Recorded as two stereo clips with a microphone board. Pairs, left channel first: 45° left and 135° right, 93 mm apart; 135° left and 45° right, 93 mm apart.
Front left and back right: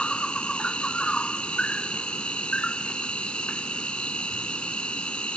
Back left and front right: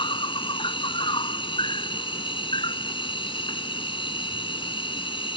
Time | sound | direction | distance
0.0 | an insect | 125° left | ?